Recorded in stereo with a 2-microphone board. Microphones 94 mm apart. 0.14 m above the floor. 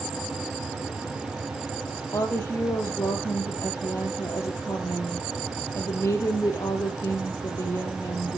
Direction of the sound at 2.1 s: 30° left (ahead or behind).